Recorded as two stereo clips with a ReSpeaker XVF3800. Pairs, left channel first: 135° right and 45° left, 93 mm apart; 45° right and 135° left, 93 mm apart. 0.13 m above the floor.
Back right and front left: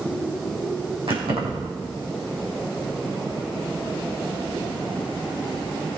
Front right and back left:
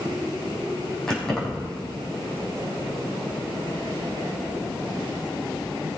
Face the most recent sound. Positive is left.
turn(degrees=40)